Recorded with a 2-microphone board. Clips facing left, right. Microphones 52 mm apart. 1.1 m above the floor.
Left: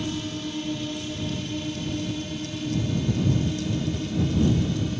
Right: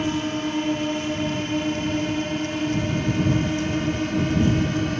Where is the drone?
45° right (ahead or behind); by 5.0 s 55° right (ahead or behind).